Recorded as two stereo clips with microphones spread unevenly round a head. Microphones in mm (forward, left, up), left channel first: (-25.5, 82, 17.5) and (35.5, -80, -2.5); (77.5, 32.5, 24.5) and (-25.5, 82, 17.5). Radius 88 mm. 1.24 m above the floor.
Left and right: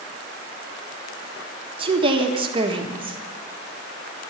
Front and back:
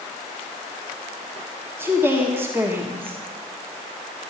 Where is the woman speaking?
130° right, 1.5 m.